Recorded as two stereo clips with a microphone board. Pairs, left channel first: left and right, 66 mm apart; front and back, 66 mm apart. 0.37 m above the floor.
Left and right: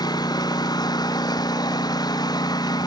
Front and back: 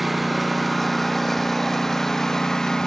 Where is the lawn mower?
90° left; by 2.9 s 80° left.